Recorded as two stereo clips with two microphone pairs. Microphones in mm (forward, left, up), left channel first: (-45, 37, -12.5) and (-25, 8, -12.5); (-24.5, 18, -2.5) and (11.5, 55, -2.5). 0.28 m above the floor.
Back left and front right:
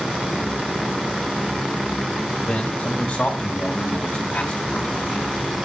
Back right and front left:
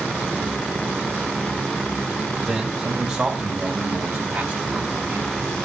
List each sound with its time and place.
2.4 s a man speaking: 105° left, 1.6 m; by 5.3 s 65° left, 2.5 m